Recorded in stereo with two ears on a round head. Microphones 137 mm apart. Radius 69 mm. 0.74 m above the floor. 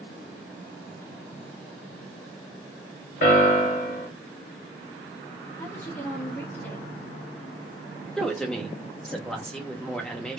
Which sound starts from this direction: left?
A piano, at 3.2 s.